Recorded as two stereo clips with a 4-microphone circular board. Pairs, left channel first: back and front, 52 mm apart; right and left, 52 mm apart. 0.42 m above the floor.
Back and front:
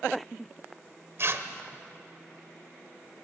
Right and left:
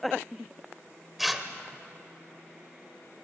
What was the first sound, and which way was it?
Tearing paper, straight ahead.